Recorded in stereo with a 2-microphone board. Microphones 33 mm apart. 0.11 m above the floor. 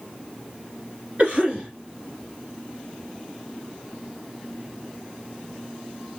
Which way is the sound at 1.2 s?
30° right (ahead or behind).